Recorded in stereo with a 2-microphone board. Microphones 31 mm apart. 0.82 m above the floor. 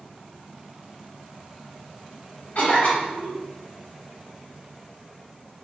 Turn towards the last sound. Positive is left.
turn(degrees=55)  # may be behind; listen again after turning